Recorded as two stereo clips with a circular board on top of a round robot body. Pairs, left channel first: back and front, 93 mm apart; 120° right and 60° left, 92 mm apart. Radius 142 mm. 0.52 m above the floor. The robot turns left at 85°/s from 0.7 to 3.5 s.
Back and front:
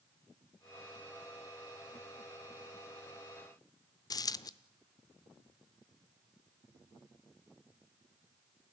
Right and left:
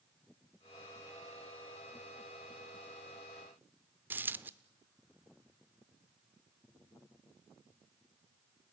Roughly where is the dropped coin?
Behind left.